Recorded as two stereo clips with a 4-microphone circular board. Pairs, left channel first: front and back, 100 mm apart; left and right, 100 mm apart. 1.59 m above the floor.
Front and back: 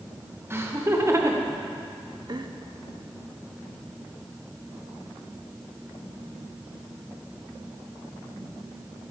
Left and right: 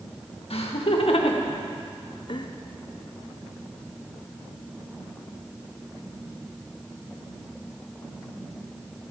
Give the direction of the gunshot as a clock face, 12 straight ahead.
No gunshot in this recording.